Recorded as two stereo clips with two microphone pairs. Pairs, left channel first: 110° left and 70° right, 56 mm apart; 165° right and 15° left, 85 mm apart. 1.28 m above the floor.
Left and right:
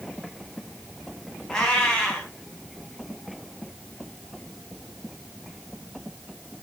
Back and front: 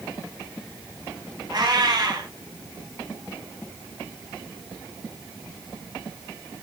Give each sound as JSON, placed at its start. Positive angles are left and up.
{"t": 1.5, "sound": "a cat meowing", "azimuth_deg": 35, "distance_m": 2.0}